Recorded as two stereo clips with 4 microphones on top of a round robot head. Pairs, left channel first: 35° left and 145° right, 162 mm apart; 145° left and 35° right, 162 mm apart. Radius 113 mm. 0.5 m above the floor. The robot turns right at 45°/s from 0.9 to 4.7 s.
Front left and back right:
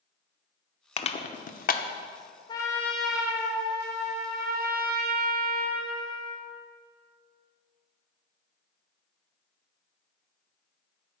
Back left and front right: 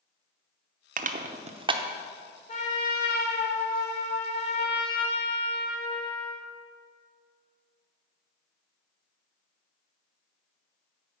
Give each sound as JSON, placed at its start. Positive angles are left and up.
{"t": 1.0, "sound": "crushing", "azimuth_deg": -15, "distance_m": 0.9}
{"t": 2.5, "sound": "a trumpet", "azimuth_deg": 100, "distance_m": 2.0}